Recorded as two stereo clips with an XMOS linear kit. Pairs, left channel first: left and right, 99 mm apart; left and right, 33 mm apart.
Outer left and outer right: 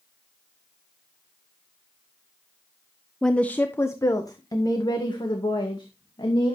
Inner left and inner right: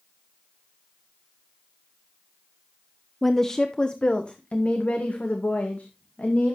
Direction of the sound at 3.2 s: 5° left (ahead or behind).